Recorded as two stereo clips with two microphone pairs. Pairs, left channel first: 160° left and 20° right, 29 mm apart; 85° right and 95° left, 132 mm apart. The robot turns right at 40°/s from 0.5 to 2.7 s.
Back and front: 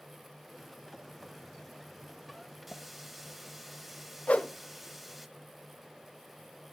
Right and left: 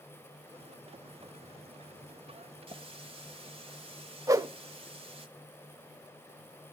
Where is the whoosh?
155° left, 0.5 m.